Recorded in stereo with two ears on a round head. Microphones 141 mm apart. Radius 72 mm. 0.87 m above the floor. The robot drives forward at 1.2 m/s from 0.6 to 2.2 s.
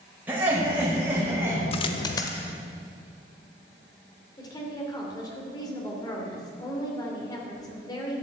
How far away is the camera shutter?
I don't hear a camera shutter.